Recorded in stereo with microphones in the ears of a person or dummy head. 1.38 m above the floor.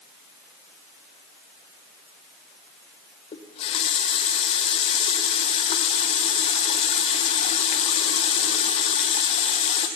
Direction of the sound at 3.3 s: 30° left (ahead or behind).